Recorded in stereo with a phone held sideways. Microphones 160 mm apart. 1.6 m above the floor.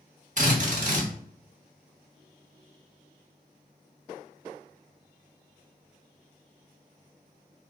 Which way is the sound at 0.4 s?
50° right (ahead or behind).